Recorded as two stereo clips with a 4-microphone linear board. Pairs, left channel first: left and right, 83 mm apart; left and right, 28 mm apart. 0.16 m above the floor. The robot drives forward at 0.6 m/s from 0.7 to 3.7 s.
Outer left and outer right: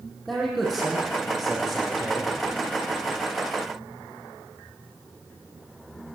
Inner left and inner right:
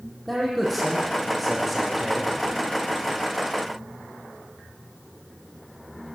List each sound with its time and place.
0.3 s a man speaking: centre (ahead or behind), 6.5 m